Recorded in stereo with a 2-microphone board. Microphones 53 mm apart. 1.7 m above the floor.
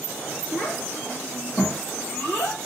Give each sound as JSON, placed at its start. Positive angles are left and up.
{"t": 0.5, "sound": "a child speaking", "side_deg": 45, "distance_m": 1.3}